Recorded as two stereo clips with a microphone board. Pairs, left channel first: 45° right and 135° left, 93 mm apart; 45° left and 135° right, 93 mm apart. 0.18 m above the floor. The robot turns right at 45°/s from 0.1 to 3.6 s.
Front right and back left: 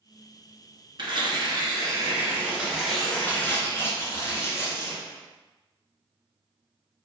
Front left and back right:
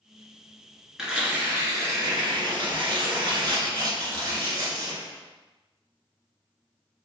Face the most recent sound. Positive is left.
turn(degrees=-100)